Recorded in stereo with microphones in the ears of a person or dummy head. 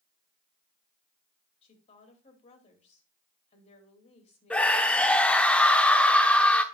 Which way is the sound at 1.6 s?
35° left (ahead or behind).